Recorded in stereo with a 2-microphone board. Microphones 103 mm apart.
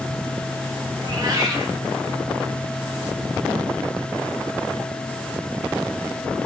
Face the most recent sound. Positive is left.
turn(degrees=-40)  # may be behind; listen again after turning